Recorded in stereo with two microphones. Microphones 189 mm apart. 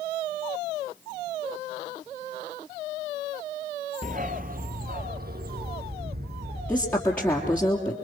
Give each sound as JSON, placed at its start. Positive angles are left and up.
{"t": 4.0, "sound": "a dog barking", "side_deg": -45, "distance_m": 1.1}
{"t": 6.7, "sound": "a woman speaking", "side_deg": 5, "distance_m": 4.0}